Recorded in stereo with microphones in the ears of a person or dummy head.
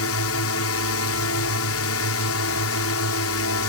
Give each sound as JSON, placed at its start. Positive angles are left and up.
{"t": 0.0, "sound": "a drone", "side_deg": 75}